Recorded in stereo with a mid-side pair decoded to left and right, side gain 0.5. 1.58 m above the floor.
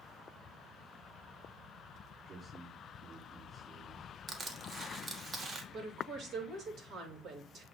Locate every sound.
2.2 s a man speaking: 50° right, 4.5 m
4.3 s crushing: 40° right, 1.6 m
5.7 s a woman speaking: 60° right, 3 m